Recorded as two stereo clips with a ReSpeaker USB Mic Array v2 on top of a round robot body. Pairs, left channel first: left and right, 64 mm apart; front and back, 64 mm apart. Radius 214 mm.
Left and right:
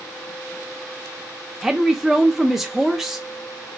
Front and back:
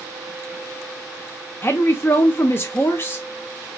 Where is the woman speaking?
10° right, 0.9 m.